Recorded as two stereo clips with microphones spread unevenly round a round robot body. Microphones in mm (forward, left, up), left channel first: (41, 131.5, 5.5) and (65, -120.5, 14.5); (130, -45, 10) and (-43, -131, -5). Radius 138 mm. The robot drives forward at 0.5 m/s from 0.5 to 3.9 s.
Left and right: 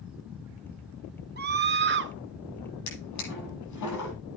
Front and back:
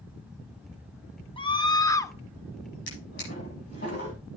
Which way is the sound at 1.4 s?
40° right.